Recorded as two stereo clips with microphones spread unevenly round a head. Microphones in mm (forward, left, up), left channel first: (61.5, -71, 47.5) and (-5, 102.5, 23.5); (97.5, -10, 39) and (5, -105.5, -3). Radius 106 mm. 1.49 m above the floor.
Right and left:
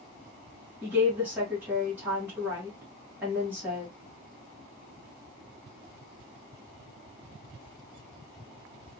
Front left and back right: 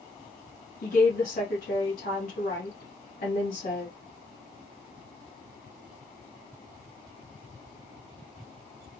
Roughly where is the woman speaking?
Ahead left.